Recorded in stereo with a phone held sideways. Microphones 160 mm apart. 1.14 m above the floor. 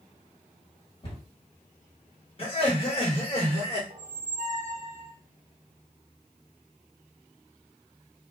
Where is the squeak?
45° right (ahead or behind), 0.6 m.